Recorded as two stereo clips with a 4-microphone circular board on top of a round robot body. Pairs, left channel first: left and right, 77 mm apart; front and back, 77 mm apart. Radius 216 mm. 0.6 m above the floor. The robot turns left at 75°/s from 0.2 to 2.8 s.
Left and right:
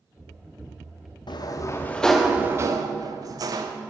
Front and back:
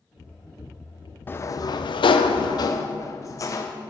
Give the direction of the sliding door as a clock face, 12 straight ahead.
10 o'clock.